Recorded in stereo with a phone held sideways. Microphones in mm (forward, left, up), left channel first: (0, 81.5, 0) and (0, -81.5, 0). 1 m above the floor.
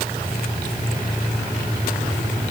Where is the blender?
No blender in this recording.